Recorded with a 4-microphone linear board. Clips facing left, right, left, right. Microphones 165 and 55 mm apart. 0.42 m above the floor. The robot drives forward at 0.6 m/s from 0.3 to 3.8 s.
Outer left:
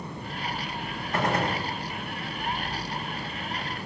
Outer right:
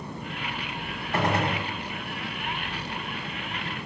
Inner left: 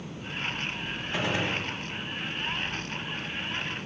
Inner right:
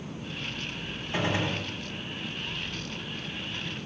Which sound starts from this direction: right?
A gunshot, at 1.1 s.